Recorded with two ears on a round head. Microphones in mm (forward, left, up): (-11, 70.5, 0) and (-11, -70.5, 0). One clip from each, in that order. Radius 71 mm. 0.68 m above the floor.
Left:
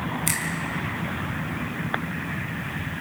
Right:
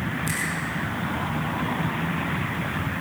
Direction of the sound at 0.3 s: 50° left (ahead or behind).